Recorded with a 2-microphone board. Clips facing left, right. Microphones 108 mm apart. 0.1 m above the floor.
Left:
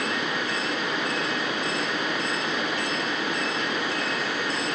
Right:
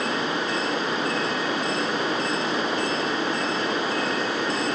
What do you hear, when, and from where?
Only background noise.